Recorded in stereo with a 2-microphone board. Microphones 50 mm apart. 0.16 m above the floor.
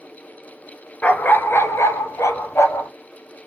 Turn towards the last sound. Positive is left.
turn(degrees=70)  # may be behind; listen again after turning